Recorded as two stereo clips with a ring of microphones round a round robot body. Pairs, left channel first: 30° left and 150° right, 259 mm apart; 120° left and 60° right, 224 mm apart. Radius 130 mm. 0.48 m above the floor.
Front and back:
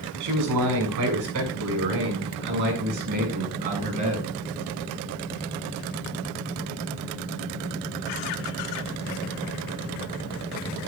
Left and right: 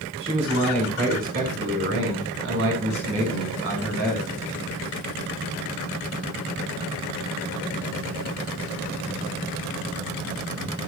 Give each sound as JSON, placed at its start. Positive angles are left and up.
{"t": 0.2, "sound": "a man speaking", "azimuth_deg": -130, "distance_m": 5.5}